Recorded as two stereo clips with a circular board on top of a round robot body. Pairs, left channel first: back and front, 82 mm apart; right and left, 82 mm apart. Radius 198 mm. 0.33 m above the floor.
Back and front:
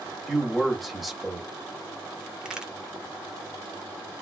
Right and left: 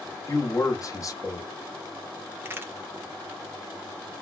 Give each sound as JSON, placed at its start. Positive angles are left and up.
{"t": 0.3, "sound": "a man speaking", "azimuth_deg": -90, "distance_m": 1.5}
{"t": 2.4, "sound": "a crack", "azimuth_deg": 70, "distance_m": 1.5}